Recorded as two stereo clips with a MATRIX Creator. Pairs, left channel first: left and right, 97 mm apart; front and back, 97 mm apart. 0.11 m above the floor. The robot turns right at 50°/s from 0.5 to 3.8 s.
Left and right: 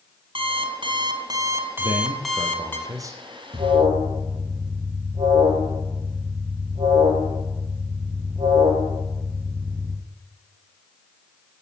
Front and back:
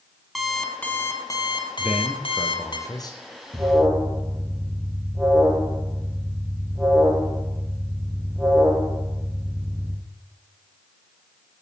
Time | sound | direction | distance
0.3 | an alarm clock | 90° right | 1.7 m
1.8 | a man speaking | 105° right | 2.5 m
3.5 | an alarm | 125° right | 4 m